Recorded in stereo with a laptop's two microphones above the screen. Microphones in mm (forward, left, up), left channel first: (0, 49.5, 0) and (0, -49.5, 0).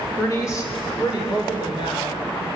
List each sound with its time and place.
0.2 s a woman speaking: 25° left (ahead or behind), 3 m; by 2.2 s 60° left (ahead or behind), 4.5 m